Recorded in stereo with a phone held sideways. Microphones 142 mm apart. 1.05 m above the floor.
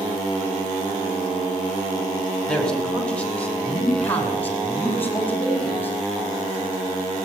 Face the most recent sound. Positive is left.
turn(degrees=15)  # may be behind; listen again after turning